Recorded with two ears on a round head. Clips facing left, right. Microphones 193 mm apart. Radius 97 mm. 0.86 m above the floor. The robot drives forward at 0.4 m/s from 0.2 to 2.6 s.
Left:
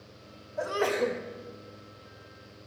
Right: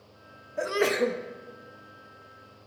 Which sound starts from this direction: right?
A sneeze, at 0.6 s.